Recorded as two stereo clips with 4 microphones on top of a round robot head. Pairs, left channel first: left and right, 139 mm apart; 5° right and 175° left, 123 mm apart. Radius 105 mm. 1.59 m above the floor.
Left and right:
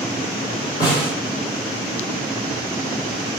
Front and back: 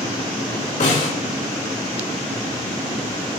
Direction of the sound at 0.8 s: 20° left.